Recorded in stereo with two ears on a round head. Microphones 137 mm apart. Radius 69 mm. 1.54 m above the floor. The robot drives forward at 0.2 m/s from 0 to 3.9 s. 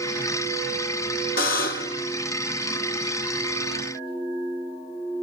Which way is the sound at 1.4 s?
60° left (ahead or behind).